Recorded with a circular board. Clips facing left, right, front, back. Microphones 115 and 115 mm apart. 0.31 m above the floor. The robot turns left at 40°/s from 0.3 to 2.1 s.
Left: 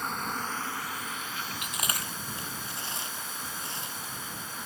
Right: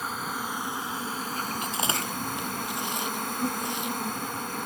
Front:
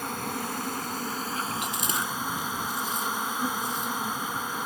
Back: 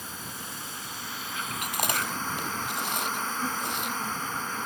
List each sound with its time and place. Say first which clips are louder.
0.0 s an insect: right 1 dB, front 9 dB; 5° right; by 4.7 s 75° right
1.6 s chewing: right 6 dB, even; 145° right; by 4.0 s 165° right